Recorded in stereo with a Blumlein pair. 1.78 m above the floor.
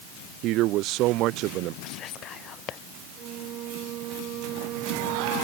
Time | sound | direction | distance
0.4 | a man speaking | 40° right | ?
1.8 | whispering | 30° left | ?
3.2 | a flute | 35° right | ?